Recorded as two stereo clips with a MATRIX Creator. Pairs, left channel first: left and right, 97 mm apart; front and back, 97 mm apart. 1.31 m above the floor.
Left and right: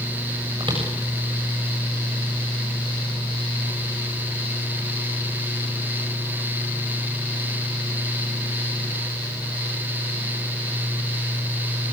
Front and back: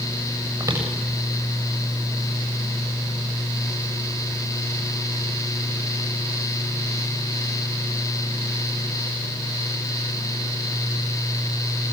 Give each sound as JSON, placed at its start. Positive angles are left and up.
{"t": 0.6, "sound": "footsteps", "azimuth_deg": -125, "distance_m": 8.5}